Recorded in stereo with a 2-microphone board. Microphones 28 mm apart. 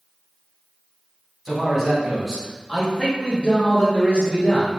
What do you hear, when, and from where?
1.4 s a man speaking: 5° right (ahead or behind), 1.6 m; by 4.7 s 45° left (ahead or behind), 1.5 m